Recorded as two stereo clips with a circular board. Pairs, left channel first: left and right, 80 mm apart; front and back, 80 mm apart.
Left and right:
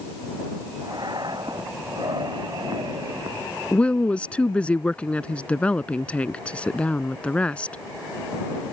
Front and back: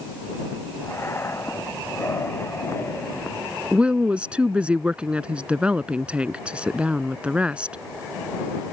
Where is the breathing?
60° right.